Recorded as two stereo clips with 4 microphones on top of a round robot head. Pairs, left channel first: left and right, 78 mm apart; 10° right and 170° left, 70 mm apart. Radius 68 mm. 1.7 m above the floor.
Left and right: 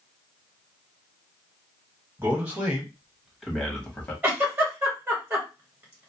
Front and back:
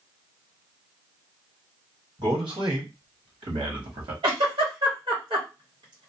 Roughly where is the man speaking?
Behind right.